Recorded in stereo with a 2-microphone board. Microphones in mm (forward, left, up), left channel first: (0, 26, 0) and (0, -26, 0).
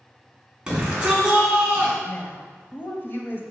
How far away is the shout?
About 3 m.